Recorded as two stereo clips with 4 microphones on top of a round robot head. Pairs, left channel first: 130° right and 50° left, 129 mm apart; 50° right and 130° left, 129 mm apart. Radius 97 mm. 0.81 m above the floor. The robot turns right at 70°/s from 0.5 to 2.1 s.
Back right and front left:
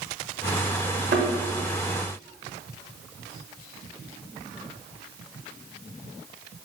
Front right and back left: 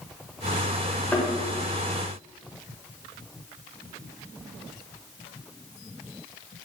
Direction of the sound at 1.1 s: 30° left.